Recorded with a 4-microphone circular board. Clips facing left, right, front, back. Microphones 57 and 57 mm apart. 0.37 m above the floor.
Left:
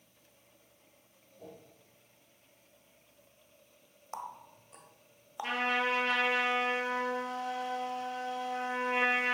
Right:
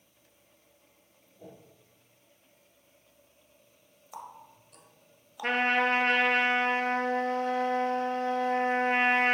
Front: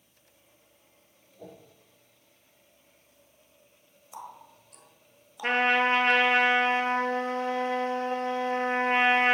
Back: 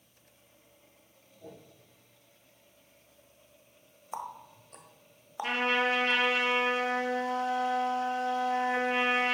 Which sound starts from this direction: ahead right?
A trumpet, at 5.4 s.